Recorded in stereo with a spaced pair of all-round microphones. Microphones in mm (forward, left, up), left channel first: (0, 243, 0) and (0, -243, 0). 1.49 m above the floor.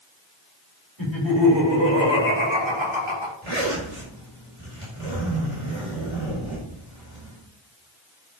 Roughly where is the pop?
I don't hear a pop.